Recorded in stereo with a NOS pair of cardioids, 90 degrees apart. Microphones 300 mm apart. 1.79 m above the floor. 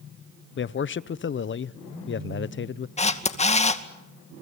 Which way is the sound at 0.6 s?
40° left.